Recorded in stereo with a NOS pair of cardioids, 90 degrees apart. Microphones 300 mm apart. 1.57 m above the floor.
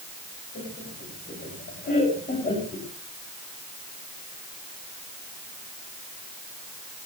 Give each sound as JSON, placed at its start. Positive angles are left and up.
{"t": 0.6, "sound": "laughter", "azimuth_deg": 40, "distance_m": 8.0}